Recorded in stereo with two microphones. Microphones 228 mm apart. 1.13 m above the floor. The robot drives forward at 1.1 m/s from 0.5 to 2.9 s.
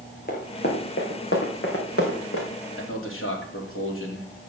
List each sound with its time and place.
0.3 s running footsteps: 45° left (ahead or behind), 3.5 m; by 2.5 s 70° left (ahead or behind), 4 m
2.8 s a man speaking: 70° left (ahead or behind), 3 m; by 4.3 s 65° left (ahead or behind), 3 m